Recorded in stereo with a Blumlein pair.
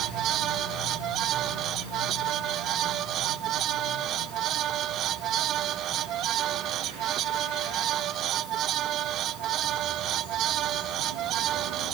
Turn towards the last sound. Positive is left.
turn(degrees=-30)